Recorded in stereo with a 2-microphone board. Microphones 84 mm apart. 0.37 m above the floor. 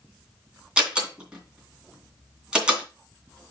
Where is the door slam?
10° right (ahead or behind), 2.5 m.